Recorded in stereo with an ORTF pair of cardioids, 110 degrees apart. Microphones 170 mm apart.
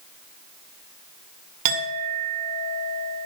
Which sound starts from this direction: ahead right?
A clink, at 1.6 s.